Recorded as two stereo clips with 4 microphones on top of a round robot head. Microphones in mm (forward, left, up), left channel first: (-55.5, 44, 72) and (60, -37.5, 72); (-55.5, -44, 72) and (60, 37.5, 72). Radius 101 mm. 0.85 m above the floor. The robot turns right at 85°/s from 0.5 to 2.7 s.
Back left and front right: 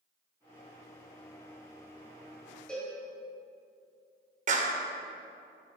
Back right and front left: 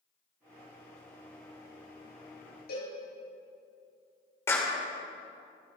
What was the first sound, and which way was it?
A cowbell, 130° right.